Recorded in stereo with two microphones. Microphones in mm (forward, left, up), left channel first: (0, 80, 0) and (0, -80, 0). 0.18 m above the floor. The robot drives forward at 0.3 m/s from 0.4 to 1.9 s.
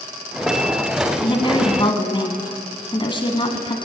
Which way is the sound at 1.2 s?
30° left (ahead or behind).